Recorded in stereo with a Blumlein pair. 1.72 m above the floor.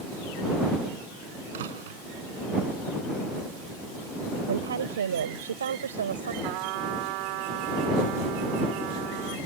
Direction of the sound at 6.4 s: 45° right.